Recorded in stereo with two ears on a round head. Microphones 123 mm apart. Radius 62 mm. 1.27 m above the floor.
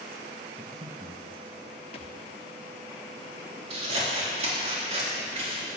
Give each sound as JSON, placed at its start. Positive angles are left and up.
{"t": 0.6, "sound": "breathing", "side_deg": -35, "distance_m": 1.6}
{"t": 1.9, "sound": "a thud", "side_deg": 45, "distance_m": 1.0}
{"t": 3.7, "sound": "scissors", "side_deg": -50, "distance_m": 3.0}